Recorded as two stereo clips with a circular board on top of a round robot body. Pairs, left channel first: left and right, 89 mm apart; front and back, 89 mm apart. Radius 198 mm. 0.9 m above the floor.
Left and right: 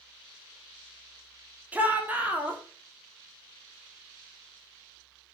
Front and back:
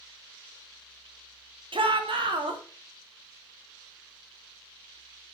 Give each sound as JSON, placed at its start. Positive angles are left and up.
{"t": 1.7, "sound": "a shout", "azimuth_deg": -160, "distance_m": 3.0}